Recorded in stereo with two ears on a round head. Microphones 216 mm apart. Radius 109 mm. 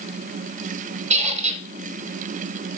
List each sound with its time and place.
1.1 s a squeak: 30° right (ahead or behind), 1.3 m